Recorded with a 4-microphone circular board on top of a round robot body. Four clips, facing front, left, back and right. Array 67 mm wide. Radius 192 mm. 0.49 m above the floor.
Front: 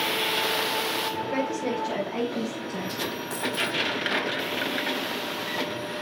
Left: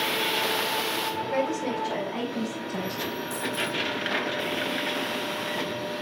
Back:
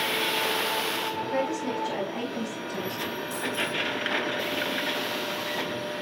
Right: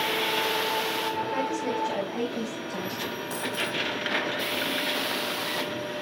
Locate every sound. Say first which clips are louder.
1.3 s a woman speaking: left 1 dB, even; 45° left, 6 m; by 3.1 s 55° left, 4.5 m
3.3 s a dropped coin: even, front 2 dB; 10° right, 2 m